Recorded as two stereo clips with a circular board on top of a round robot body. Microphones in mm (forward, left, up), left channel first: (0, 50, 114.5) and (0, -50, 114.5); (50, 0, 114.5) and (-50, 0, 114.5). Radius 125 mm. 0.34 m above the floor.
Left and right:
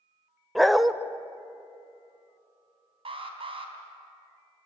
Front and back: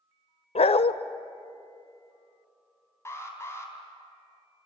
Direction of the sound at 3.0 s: 65° right.